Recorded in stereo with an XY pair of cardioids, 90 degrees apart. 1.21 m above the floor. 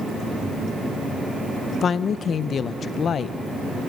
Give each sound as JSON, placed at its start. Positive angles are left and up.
{"t": 1.8, "sound": "a woman speaking", "azimuth_deg": 60, "distance_m": 0.6}